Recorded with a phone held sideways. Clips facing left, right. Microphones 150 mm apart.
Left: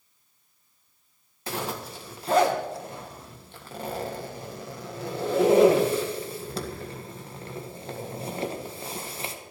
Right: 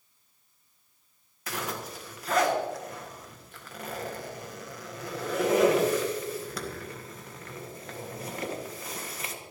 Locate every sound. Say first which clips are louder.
1.5 s a zipper: left 3 dB; 30° left (ahead or behind), 1.6 m